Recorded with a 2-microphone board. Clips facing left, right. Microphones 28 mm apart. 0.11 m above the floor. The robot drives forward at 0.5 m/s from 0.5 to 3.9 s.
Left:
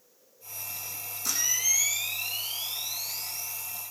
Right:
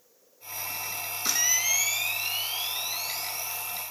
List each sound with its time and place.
1.2 s a camera shutter: 40° right (ahead or behind), 0.5 m; by 3.5 s 15° right (ahead or behind), 1.4 m